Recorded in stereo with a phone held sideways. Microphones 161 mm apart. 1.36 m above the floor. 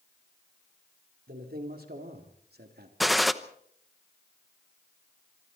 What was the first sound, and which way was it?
A man speaking, 70° right (ahead or behind).